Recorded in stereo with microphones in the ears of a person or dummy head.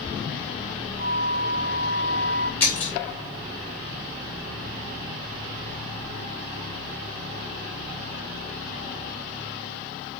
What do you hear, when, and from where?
1.0 s a flute: 20° right (ahead or behind), 4.5 m
2.6 s breaking glass: 5° left (ahead or behind), 3 m